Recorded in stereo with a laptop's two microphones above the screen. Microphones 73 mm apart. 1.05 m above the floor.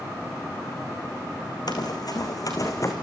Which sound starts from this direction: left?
Running footsteps, at 1.7 s.